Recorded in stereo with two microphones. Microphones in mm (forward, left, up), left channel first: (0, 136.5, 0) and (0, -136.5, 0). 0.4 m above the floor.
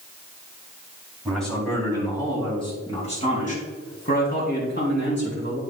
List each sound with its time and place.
1.2 s a man speaking: centre (ahead or behind), 3.5 m; by 5.6 s 45° left (ahead or behind), 5.5 m